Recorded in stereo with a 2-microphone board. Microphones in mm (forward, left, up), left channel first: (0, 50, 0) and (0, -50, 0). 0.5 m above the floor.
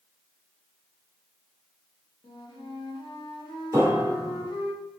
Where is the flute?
55° left (ahead or behind), 0.8 m.